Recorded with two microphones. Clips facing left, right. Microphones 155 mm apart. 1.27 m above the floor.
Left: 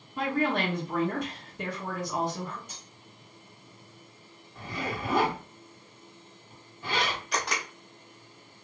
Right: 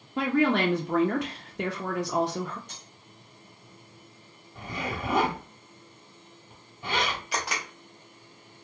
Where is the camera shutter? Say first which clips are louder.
Even; 5° right (ahead or behind), 0.8 m.